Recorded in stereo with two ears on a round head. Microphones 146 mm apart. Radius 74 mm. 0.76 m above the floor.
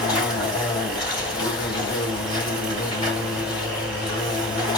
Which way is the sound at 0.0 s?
30° left (ahead or behind).